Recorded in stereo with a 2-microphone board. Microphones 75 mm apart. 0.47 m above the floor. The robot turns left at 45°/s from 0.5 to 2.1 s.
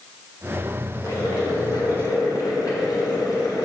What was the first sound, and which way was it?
Boiling, 115° left.